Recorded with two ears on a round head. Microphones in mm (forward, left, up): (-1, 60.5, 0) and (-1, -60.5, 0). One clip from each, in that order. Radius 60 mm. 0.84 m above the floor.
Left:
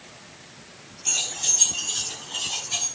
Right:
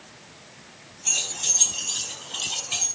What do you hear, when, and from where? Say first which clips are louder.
1.1 s keys jangling: left 1 dB; 5° right (ahead or behind), 5 m; by 2.9 s 30° right (ahead or behind), 6.5 m